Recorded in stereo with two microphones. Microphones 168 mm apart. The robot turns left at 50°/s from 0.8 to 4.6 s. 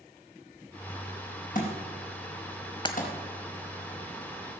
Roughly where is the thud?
Left.